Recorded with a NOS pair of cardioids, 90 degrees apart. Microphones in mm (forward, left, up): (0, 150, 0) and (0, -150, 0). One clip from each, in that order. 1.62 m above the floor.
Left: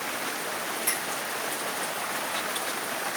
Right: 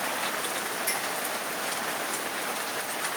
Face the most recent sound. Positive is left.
turn(degrees=40)